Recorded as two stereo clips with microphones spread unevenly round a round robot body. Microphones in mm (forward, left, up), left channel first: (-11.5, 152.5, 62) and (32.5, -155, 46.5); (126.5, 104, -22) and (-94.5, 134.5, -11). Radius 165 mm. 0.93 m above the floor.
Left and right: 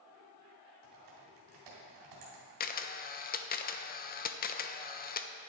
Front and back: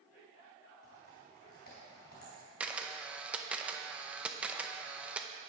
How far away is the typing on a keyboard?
About 3 m.